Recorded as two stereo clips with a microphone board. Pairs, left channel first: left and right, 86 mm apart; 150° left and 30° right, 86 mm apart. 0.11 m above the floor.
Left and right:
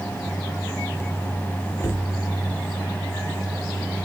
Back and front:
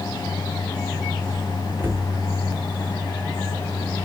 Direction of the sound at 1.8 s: 35° left.